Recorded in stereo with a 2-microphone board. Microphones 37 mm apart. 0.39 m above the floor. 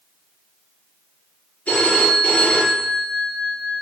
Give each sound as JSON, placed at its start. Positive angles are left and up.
{"t": 1.7, "sound": "a phone ringing", "side_deg": 35, "distance_m": 3.5}